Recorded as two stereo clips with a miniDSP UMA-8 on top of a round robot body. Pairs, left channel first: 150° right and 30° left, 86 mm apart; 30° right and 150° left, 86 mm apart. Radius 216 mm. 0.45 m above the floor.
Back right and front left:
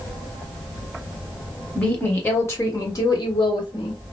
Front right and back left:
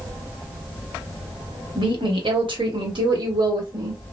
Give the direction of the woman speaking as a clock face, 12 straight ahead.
8 o'clock.